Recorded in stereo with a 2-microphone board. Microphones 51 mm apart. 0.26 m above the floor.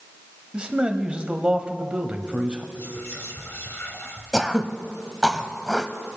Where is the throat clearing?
5° right (ahead or behind), 0.9 m.